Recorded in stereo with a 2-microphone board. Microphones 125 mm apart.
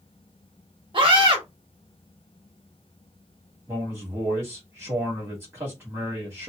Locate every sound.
0.9 s a scream: 45° right (ahead or behind), 1.1 m
3.7 s a man speaking: 20° right (ahead or behind), 1.3 m